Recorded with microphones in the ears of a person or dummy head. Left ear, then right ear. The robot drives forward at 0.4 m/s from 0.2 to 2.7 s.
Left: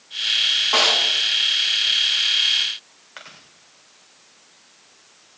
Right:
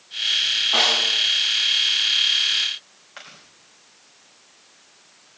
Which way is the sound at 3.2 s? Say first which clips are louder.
Left 1 dB; 15° left (ahead or behind).